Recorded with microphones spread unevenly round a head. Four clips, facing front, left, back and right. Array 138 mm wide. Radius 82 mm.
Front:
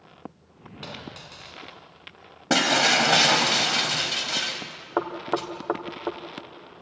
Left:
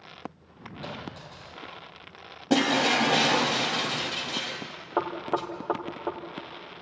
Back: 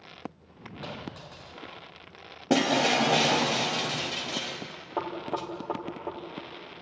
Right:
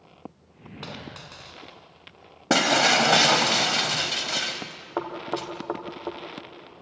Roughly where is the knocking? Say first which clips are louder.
Left 2 dB, front 5 dB; ahead.